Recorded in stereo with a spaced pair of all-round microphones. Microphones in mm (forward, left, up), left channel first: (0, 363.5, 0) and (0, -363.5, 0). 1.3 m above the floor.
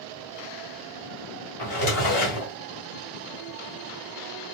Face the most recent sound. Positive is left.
turn(degrees=35)  # may be behind; listen again after turning